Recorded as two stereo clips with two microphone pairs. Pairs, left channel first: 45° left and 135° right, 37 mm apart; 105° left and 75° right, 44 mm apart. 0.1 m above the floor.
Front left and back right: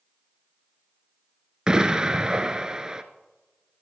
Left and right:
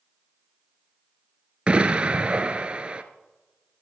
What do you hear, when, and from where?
1.7 s an explosion: 90° right, 1.0 m